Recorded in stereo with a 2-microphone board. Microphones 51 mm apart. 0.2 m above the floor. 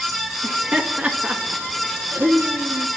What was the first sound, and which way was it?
Laughter, 20° right (ahead or behind).